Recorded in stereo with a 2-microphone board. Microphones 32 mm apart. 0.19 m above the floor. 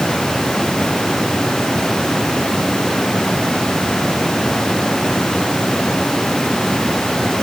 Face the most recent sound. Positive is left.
No sound to turn to.